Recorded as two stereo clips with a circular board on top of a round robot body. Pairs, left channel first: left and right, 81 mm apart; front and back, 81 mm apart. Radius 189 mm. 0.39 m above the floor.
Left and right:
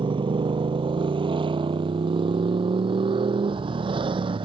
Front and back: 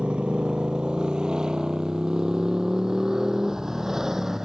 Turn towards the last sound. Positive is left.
turn(degrees=-95)